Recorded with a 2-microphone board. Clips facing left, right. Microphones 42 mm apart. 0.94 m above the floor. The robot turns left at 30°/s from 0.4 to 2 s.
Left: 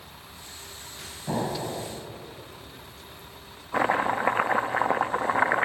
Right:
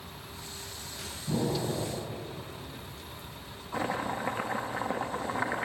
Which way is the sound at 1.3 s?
65° left (ahead or behind).